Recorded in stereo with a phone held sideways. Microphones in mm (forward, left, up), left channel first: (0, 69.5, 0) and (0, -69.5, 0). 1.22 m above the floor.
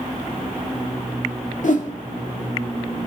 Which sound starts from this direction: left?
A whoosh, at 1.6 s.